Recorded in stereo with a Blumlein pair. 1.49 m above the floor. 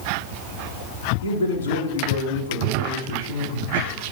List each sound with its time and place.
1.2 s a man speaking: 60° left, 4 m